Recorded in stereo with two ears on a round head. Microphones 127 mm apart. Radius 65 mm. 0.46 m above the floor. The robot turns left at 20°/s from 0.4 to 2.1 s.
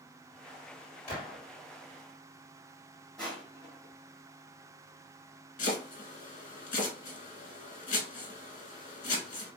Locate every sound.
1.1 s a gunshot: 55° left (ahead or behind), 2 m
3.2 s crushing: 5° left (ahead or behind), 1.8 m
5.6 s chopping: 60° left (ahead or behind), 1.1 m